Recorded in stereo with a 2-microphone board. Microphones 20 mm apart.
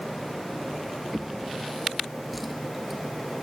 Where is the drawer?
5° left (ahead or behind), 1.3 m.